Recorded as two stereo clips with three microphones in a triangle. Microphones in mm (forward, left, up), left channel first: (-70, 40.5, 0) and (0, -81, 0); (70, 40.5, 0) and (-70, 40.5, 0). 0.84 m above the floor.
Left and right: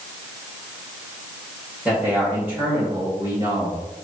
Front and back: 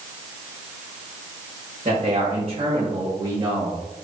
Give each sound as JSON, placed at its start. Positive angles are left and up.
{"t": 1.9, "sound": "a man speaking", "azimuth_deg": -140, "distance_m": 3.5}